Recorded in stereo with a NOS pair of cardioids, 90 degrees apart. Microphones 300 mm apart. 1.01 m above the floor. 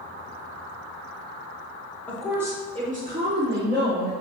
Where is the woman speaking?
5° left, 1.8 m; by 4.1 s 45° right, 3.5 m.